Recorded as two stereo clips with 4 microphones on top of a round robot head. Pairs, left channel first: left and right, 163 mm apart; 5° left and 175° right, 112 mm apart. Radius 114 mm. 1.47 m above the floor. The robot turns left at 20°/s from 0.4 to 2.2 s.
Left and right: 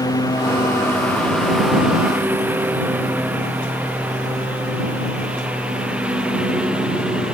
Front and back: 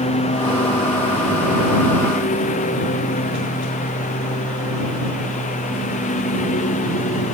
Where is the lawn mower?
20° left; by 7.3 s 5° right.